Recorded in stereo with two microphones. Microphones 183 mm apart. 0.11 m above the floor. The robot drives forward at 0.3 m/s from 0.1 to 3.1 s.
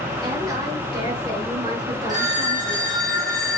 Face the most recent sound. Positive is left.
turn(degrees=-50)  # may be behind; listen again after turning